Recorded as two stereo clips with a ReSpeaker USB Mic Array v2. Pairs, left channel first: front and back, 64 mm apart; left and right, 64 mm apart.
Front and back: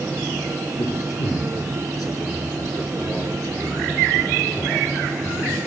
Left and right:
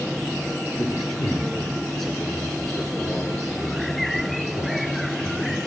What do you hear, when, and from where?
0.8 s a man speaking: 5° left, 3.5 m